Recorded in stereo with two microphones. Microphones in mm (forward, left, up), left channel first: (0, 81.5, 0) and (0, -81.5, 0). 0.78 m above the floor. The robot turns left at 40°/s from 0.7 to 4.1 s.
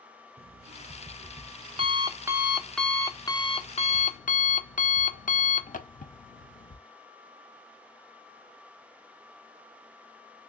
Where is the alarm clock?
105° right, 0.6 m; by 6.8 s 120° left, 0.6 m.